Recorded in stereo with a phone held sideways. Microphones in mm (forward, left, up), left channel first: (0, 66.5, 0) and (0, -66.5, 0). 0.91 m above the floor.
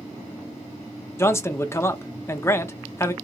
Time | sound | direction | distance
1.2 | a man speaking | 20° left (ahead or behind) | 0.6 m